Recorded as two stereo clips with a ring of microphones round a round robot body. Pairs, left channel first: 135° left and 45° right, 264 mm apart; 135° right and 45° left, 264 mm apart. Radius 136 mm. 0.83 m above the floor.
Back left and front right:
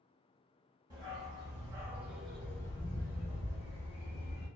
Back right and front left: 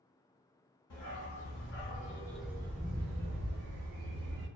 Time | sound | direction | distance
0.9 | a dog barking | 115° right | 1.0 m